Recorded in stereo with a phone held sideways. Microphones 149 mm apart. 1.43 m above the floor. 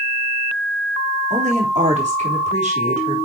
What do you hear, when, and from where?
1.3 s a woman speaking: 50° right (ahead or behind), 3.5 m